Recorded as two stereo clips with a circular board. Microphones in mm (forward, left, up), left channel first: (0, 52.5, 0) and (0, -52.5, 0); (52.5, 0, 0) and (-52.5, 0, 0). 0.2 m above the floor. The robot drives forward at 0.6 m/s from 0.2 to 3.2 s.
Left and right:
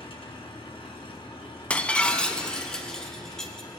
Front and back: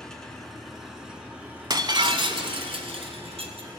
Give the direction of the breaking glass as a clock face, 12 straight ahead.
7 o'clock.